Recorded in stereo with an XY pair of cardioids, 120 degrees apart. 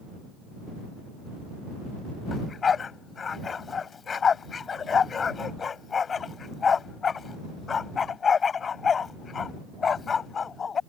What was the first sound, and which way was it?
A dog barking, 35° left.